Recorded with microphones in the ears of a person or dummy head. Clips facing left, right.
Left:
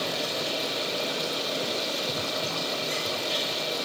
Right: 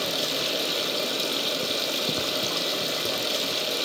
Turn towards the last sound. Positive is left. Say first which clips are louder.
# right 1 dB
turn(degrees=-35)  # may be behind; listen again after turning